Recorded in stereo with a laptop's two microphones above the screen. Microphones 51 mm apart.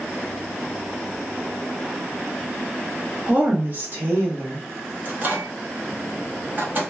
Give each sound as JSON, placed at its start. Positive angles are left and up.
{"t": 3.3, "sound": "a woman speaking", "side_deg": -25, "distance_m": 1.0}
{"t": 5.0, "sound": "a microwave", "side_deg": -40, "distance_m": 0.8}